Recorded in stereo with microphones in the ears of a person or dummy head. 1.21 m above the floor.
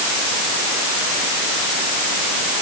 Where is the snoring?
No snoring in this recording.